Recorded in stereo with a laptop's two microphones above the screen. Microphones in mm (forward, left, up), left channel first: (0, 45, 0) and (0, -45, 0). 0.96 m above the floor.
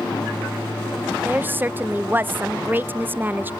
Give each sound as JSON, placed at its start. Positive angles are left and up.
{"t": 1.2, "sound": "a woman speaking", "side_deg": -20, "distance_m": 0.5}